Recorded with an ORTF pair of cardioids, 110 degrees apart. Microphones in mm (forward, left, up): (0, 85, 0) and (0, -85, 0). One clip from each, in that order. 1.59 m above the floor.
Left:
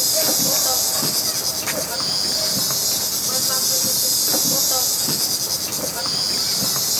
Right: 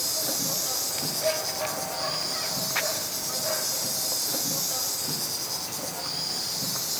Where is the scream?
I don't hear a scream.